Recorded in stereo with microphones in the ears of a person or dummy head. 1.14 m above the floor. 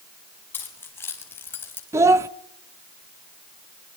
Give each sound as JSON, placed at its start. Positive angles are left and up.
{"t": 0.5, "sound": "keys jangling", "side_deg": 15, "distance_m": 5.5}
{"t": 1.9, "sound": "a child speaking", "side_deg": -10, "distance_m": 0.9}